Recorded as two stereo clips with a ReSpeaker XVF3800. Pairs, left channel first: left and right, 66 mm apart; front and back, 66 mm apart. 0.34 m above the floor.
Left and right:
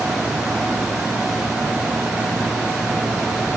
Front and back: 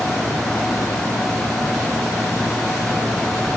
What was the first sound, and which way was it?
Only background noise.